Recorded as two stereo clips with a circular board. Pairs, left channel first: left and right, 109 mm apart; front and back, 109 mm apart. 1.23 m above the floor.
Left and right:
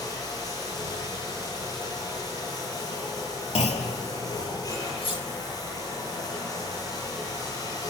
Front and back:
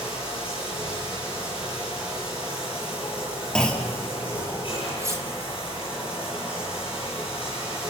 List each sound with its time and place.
0.0 s running water: 35° left, 9 m
3.5 s a clunk: 85° left, 2.5 m
5.0 s cutlery clinking: 120° left, 2.5 m